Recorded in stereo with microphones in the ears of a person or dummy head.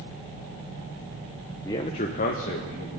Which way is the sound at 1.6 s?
20° left (ahead or behind).